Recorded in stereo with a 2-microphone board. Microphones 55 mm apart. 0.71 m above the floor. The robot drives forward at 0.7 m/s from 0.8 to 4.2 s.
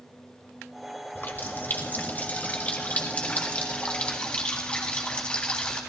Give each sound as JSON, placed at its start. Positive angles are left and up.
{"t": 1.1, "sound": "a running tap", "side_deg": 45, "distance_m": 2.0}